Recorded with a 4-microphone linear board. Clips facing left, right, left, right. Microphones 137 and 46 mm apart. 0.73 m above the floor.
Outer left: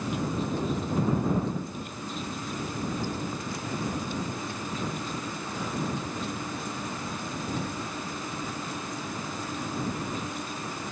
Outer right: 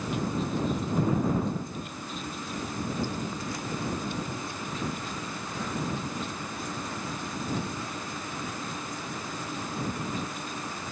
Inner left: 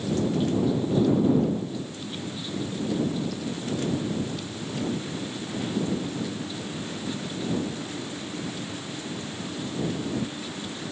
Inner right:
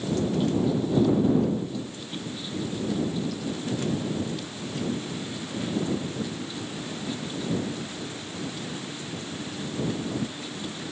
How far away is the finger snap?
No finger snap in this recording.